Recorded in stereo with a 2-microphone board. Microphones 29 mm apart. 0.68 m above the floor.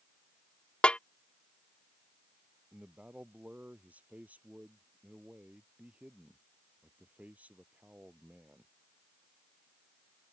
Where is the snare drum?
50° left (ahead or behind).